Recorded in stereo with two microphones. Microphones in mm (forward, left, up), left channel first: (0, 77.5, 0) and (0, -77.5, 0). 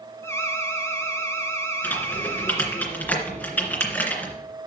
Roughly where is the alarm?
Centre.